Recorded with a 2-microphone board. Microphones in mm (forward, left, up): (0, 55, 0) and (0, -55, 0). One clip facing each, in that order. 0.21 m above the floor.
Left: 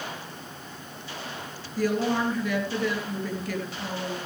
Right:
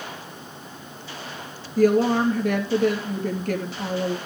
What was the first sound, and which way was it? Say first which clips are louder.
A woman speaking: right 7 dB; 45° right (ahead or behind).